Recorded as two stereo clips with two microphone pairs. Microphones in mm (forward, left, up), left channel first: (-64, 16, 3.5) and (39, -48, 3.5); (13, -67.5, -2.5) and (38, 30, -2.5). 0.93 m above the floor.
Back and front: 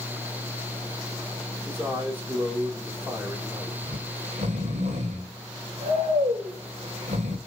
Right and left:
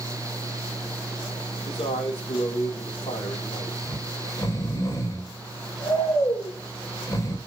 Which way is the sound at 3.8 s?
50° right.